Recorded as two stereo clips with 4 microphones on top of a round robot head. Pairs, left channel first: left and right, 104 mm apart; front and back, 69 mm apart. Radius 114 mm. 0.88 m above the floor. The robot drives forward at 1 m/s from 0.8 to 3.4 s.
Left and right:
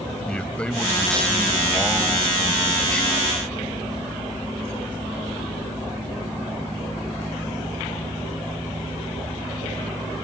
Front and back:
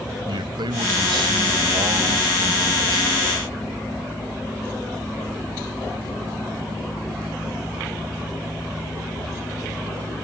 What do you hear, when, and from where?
0.3 s a man speaking: 170° left